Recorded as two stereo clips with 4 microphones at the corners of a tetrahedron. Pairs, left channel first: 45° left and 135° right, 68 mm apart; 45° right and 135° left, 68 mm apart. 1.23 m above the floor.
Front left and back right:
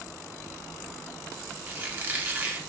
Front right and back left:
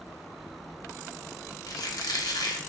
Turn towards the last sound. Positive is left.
turn(degrees=-70)